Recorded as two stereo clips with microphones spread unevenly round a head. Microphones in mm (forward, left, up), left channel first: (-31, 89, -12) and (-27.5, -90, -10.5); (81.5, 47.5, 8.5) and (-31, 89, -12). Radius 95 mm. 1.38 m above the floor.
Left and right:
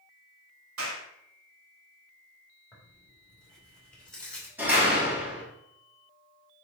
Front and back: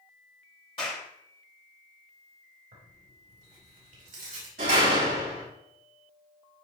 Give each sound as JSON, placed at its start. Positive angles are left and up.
{"t": 0.8, "sound": "a clap", "azimuth_deg": -85, "distance_m": 4.0}
{"t": 2.7, "sound": "tearing paper", "azimuth_deg": 175, "distance_m": 5.0}
{"t": 4.6, "sound": "a door slam", "azimuth_deg": -170, "distance_m": 5.5}